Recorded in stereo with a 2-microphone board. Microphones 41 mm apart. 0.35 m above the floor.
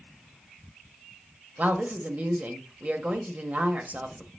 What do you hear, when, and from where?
1.6 s a woman speaking: 35° right (ahead or behind), 1.2 m